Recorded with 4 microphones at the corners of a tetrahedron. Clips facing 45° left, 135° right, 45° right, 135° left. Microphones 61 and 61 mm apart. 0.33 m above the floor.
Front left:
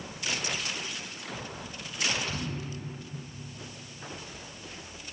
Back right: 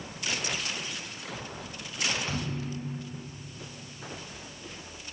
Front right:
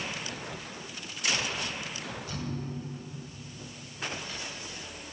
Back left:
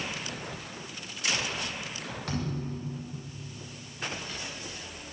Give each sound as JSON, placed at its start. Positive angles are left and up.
{"t": 2.3, "sound": "a thud", "azimuth_deg": 160, "distance_m": 9.0}